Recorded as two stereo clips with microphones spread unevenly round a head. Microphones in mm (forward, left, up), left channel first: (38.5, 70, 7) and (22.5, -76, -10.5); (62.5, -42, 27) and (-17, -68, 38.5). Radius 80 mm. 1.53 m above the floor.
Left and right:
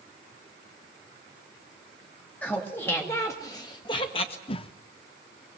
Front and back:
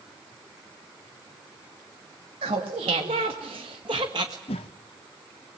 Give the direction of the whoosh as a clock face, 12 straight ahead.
11 o'clock.